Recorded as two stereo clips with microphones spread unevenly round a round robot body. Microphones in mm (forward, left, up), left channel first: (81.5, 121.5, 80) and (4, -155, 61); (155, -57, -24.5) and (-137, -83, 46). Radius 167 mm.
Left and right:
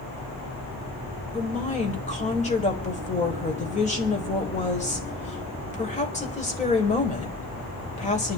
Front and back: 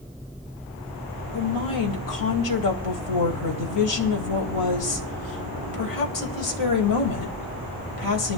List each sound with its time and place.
1.3 s a woman speaking: 5° left, 3.5 m